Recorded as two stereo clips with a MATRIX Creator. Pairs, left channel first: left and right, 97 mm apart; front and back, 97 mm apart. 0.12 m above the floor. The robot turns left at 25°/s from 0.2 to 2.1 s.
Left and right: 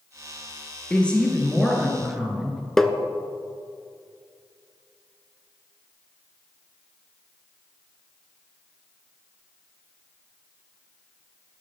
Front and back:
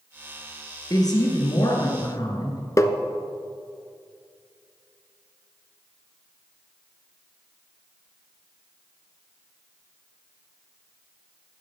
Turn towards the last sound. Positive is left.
turn(degrees=10)